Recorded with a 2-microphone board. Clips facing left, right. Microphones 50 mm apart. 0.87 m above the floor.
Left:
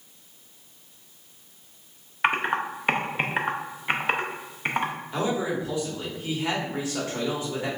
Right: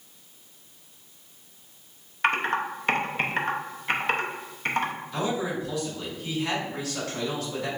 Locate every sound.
2.2 s typing on a keyboard: 15° left (ahead or behind), 0.6 m
5.1 s a man speaking: 25° left (ahead or behind), 1.6 m